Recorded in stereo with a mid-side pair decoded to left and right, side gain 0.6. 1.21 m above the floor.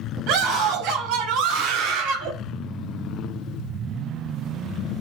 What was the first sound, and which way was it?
A scream, 70° right.